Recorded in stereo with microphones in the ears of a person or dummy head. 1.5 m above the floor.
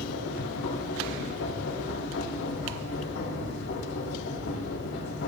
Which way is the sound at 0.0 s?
65° left (ahead or behind).